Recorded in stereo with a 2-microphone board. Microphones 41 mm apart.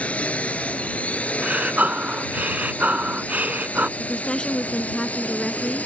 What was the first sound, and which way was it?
A drone, 30° left (ahead or behind).